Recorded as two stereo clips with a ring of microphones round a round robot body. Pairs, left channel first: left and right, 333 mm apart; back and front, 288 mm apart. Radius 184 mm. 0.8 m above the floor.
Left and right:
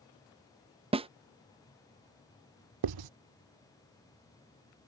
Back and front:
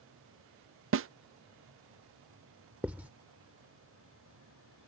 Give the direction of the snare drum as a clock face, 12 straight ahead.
1 o'clock.